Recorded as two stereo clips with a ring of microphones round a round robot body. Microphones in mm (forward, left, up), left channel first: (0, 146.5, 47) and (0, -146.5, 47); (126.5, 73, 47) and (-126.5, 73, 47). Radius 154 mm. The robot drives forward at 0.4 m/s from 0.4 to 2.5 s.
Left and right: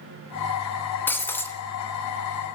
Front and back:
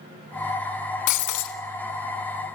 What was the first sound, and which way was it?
Breaking glass, 5° left.